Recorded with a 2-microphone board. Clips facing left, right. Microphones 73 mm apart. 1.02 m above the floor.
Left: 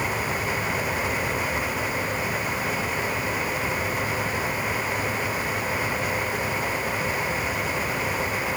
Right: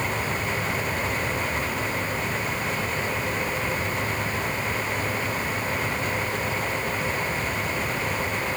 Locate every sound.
Only background noise.